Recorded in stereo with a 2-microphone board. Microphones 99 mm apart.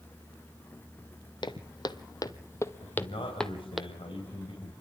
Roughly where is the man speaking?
Left.